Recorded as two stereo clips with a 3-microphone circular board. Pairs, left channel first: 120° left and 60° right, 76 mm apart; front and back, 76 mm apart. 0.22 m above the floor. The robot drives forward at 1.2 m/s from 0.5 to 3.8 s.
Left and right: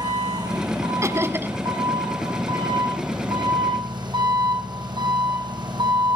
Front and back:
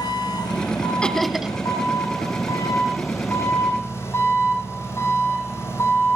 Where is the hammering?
I don't hear hammering.